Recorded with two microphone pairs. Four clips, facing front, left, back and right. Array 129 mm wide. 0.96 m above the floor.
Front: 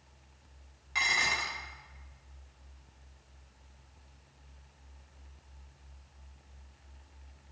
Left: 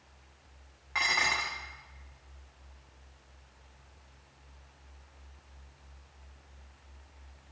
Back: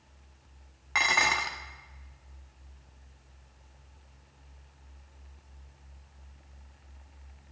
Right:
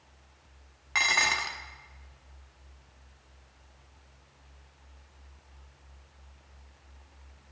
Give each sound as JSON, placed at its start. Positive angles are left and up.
{"t": 0.9, "sound": "dishes clattering", "azimuth_deg": -160, "distance_m": 1.0}